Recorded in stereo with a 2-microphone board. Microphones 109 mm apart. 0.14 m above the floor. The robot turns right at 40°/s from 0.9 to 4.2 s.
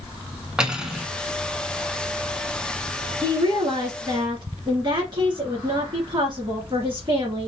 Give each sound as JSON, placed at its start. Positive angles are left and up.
{"t": 0.6, "sound": "cutlery clinking", "side_deg": -5, "distance_m": 0.7}
{"t": 3.2, "sound": "a woman speaking", "azimuth_deg": -125, "distance_m": 2.0}